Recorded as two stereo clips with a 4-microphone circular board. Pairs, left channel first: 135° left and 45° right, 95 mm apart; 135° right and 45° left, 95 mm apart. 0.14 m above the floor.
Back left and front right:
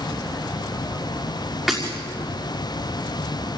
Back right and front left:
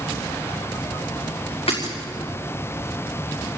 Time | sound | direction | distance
1.7 | breaking glass | 135° right | 6 m